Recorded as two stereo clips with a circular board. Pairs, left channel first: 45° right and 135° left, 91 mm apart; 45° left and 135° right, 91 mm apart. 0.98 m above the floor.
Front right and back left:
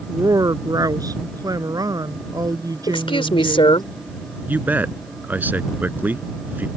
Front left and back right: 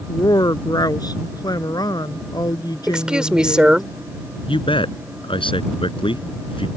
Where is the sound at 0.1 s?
90° left.